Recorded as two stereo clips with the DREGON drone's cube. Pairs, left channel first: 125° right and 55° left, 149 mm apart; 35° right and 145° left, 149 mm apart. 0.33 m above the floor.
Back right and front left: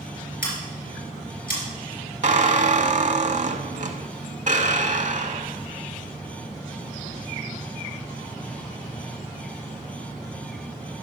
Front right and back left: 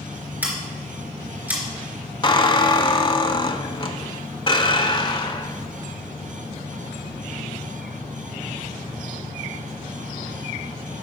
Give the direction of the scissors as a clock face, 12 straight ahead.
5 o'clock.